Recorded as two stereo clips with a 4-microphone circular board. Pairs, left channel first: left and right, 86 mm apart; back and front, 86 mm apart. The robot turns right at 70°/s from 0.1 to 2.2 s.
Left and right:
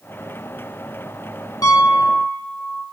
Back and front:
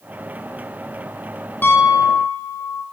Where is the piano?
120° left, 1.2 m; by 2.8 s 160° left, 1.2 m.